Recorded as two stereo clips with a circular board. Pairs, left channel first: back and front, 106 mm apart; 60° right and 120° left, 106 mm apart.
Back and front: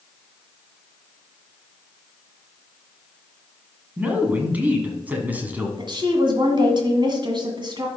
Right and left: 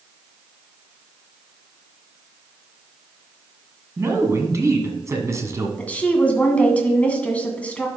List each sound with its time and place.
4.0 s a man speaking: 70° left, 1.7 m
5.8 s a woman speaking: 15° left, 1.8 m